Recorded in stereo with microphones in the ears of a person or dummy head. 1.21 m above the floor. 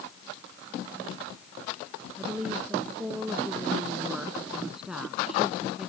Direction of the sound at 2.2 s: 5° right (ahead or behind).